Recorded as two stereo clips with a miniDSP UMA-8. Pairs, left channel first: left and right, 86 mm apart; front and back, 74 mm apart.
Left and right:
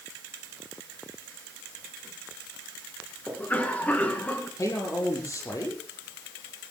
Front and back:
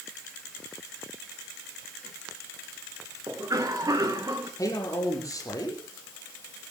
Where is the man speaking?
40° left, 7 m.